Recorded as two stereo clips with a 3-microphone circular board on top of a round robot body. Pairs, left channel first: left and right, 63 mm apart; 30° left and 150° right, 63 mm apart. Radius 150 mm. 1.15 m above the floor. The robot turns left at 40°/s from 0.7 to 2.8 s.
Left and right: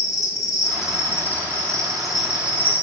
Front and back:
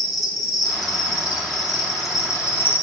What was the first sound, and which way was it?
An insect, 55° left.